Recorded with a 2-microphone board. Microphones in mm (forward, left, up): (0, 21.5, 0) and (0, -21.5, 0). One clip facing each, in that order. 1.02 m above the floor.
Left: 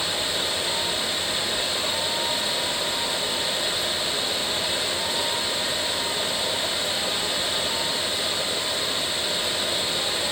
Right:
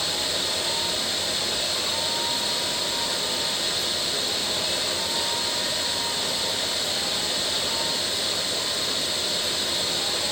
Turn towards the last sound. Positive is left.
No sound to turn to.